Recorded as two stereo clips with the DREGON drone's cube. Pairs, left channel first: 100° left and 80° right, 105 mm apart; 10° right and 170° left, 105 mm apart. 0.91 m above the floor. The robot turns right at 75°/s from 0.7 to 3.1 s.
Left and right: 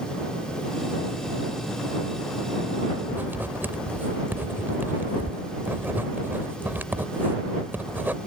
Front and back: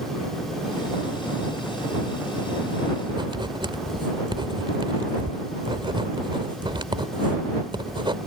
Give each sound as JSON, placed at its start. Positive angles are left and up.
{"t": 3.1, "sound": "writing", "azimuth_deg": -150}